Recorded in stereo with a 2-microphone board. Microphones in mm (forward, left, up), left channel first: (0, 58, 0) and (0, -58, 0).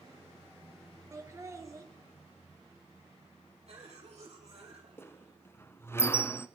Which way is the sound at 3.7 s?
60° right (ahead or behind).